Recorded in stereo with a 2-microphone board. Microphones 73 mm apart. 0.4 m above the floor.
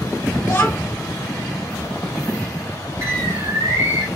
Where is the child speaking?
35° left (ahead or behind), 1.1 m.